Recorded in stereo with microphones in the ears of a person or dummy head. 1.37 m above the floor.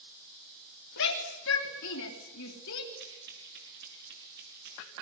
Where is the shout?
70° left (ahead or behind), 3 m.